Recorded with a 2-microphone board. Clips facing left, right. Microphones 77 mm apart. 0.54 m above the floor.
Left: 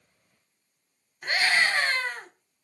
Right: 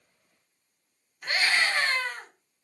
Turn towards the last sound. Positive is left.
turn(degrees=25)  # may be behind; listen again after turning